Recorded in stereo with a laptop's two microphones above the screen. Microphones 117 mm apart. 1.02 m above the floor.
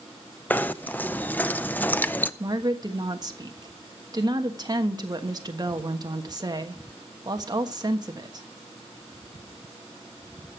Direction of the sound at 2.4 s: 35° right (ahead or behind).